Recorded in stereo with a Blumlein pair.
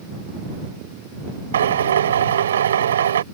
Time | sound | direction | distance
1.5 | a drill | 65° right | ?